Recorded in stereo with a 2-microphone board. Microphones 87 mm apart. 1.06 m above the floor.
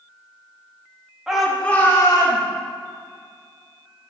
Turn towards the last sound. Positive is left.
turn(degrees=55)  # may be behind; listen again after turning